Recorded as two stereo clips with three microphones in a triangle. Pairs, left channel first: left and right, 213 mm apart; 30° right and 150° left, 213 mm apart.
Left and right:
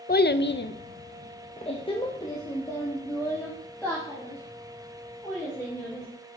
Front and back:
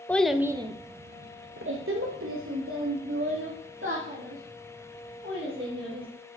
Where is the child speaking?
50° left, 0.6 m; by 6.1 s 175° left, 3 m.